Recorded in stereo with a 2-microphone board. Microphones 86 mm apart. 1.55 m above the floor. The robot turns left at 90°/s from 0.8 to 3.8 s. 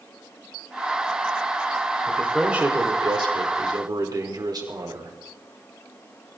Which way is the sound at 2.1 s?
30° left.